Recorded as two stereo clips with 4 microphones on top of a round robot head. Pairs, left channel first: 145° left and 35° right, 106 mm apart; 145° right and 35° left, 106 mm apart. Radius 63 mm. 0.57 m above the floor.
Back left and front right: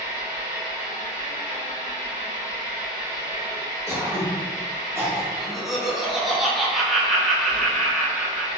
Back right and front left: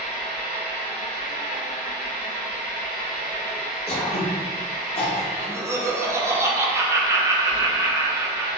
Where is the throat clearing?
105° right, 1.7 m.